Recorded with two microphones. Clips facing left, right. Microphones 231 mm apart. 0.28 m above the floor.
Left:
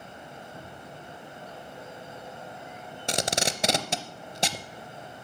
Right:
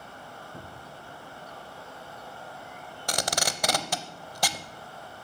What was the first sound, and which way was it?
A cupboard door, 20° right (ahead or behind).